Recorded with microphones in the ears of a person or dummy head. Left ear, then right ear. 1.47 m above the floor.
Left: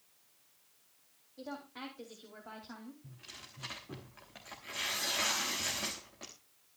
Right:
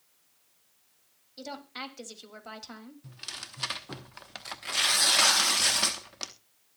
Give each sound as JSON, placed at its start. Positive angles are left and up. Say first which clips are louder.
{"t": 1.4, "sound": "a woman speaking", "louder": "right 6 dB", "side_deg": -70, "distance_m": 3.0}
{"t": 3.0, "sound": "tearing paper", "louder": "right 11 dB", "side_deg": -45, "distance_m": 1.2}